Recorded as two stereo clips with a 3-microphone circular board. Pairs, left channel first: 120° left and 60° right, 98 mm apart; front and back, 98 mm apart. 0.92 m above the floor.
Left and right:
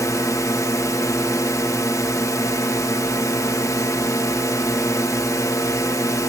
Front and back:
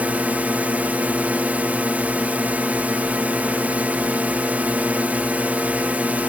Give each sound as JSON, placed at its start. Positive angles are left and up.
{"t": 0.0, "sound": "a drone", "azimuth_deg": 120}